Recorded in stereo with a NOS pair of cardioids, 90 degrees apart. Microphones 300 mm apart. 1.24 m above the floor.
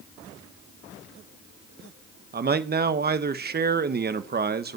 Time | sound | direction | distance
2.3 | a man speaking | 30° right | 1.2 m